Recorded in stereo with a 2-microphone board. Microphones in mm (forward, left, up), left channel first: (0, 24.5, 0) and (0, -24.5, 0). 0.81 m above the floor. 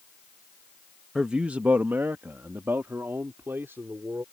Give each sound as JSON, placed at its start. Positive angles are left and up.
{"t": 1.1, "sound": "a man speaking", "side_deg": -15}